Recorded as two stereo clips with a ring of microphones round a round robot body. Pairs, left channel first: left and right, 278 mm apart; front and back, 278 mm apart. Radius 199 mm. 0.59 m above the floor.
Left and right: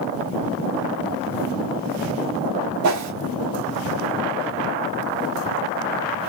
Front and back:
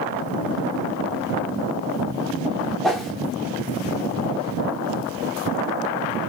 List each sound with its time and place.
2.8 s a whoosh: 90° right, 0.8 m